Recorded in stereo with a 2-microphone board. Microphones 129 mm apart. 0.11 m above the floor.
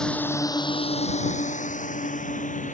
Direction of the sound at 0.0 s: 5° left (ahead or behind).